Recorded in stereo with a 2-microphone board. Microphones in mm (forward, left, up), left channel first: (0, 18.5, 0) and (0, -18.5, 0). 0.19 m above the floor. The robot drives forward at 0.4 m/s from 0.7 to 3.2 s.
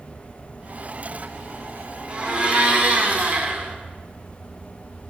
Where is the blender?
30° right (ahead or behind), 0.9 m; by 3.8 s 40° right (ahead or behind), 0.8 m.